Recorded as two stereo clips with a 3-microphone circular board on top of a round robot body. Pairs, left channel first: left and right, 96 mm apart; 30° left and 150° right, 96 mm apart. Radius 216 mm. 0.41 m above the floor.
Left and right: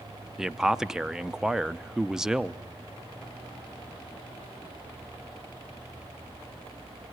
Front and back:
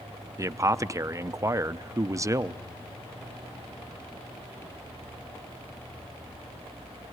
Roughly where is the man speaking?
Behind.